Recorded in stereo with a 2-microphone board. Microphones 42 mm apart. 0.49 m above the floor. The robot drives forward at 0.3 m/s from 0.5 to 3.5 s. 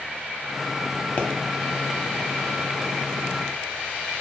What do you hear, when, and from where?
1.2 s a pop: 35° left (ahead or behind), 0.6 m